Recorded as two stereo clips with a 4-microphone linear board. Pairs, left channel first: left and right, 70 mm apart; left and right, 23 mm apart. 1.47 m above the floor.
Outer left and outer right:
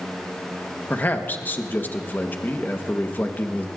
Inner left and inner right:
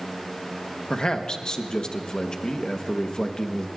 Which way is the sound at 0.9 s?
25° left (ahead or behind).